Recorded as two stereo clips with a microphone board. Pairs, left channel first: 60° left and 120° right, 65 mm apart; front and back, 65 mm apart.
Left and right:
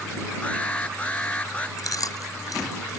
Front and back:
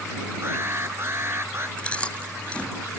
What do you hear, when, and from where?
0.4 s an alarm: 130° left
1.8 s chewing: 70° left